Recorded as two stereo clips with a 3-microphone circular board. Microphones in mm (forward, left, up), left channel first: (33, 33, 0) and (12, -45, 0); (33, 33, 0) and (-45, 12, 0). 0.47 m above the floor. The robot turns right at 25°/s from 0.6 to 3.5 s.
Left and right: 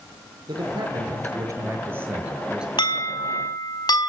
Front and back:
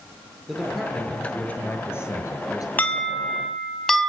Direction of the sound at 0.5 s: 75° right.